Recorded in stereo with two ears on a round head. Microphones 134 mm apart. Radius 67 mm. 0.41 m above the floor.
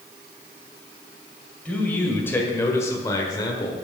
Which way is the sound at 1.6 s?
10° left (ahead or behind).